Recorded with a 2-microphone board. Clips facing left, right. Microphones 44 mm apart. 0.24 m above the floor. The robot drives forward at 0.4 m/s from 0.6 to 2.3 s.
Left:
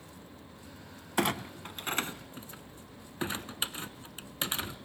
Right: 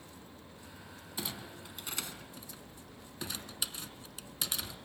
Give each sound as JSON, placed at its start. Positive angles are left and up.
{"t": 1.2, "sound": "a clunk", "side_deg": 65, "distance_m": 0.5}